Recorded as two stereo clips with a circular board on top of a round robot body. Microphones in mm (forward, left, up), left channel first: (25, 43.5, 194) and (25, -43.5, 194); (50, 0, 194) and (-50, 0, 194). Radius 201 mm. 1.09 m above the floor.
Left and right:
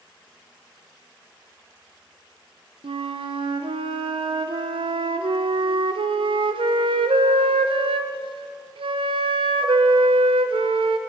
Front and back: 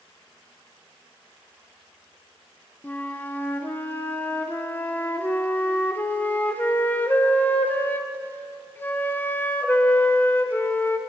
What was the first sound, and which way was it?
A flute, 75° right.